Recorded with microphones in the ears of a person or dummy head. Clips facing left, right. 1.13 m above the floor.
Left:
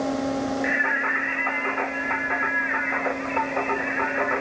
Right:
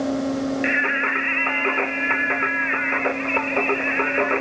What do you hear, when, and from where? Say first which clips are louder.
0.6 s singing: right 2 dB; 45° right (ahead or behind), 0.5 m